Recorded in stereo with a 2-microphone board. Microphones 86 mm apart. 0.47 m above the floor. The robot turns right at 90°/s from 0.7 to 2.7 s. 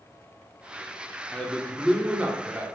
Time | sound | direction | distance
1.3 | a man speaking | 15° left (ahead or behind) | 0.7 m